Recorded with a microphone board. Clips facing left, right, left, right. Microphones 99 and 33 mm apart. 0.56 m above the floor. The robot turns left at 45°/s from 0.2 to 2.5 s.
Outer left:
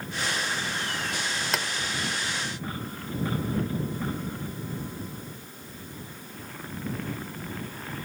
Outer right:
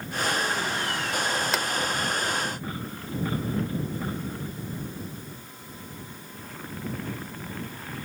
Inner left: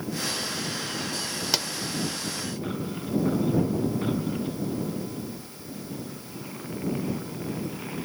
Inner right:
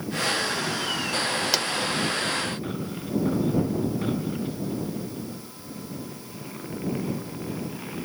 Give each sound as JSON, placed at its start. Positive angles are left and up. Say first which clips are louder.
{"t": 1.5, "sound": "a pop", "louder": "outer right 2 dB, inner left 2 dB", "side_deg": 0}